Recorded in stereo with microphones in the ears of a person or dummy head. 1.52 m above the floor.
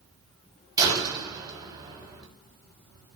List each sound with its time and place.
0.8 s a door slam: 20° right (ahead or behind), 6 m